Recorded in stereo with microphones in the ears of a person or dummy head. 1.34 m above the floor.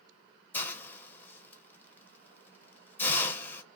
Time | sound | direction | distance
0.5 | a hiss | 10° left (ahead or behind) | 0.8 m